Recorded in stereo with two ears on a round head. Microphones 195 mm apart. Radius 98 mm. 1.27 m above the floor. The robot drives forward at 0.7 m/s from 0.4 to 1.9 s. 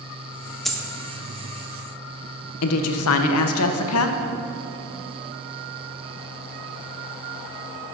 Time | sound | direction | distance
0.7 | a dropped coin | centre (ahead or behind) | 0.5 m
2.6 | a woman speaking | 75° left (ahead or behind) | 0.6 m